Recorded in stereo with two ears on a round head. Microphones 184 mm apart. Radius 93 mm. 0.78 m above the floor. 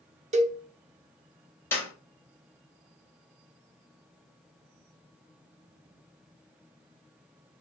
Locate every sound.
0.3 s a cowbell: 35° right (ahead or behind), 0.5 m
1.7 s a clap: 10° left (ahead or behind), 1.9 m